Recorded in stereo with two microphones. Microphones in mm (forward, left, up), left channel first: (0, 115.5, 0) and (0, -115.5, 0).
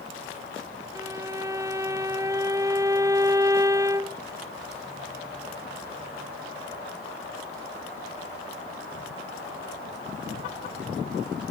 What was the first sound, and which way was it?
A violin, 15° right (ahead or behind).